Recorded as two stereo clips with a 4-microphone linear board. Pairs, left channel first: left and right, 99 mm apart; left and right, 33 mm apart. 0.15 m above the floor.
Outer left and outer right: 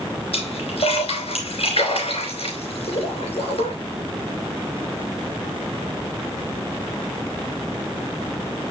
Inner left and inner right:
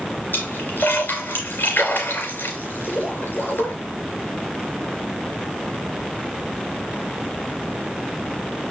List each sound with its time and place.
0.3 s a splash: 70° left (ahead or behind), 3 m